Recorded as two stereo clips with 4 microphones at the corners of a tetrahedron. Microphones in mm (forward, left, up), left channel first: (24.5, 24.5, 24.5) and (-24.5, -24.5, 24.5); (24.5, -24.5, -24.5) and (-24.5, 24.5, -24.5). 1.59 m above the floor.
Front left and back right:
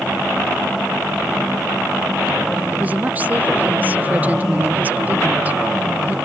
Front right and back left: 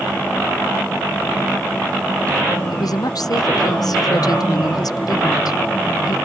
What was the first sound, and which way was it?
A woman speaking, 70° right.